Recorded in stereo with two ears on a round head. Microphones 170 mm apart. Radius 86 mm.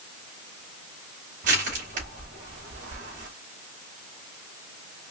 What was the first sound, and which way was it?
Crushing, 45° right (ahead or behind).